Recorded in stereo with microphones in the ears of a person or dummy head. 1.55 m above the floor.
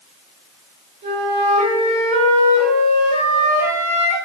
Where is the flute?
40° right (ahead or behind), 0.8 m.